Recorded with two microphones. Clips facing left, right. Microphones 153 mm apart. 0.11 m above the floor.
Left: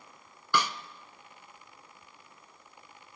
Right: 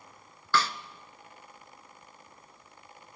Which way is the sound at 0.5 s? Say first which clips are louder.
Right 1 dB; 15° left (ahead or behind).